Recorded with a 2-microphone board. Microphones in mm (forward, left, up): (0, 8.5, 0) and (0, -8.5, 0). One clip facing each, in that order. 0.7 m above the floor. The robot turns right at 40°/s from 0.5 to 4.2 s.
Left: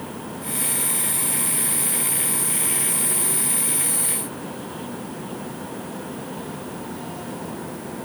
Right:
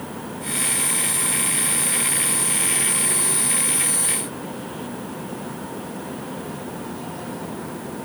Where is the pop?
No pop in this recording.